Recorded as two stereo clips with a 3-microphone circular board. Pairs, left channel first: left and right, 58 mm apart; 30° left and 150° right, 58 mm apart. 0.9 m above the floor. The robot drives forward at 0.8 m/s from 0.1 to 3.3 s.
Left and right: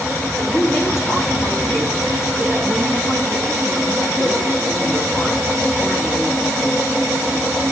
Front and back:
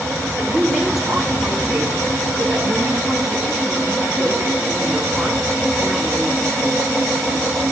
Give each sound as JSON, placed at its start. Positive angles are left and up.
{"t": 0.4, "sound": "a woman speaking", "azimuth_deg": 120, "distance_m": 6.5}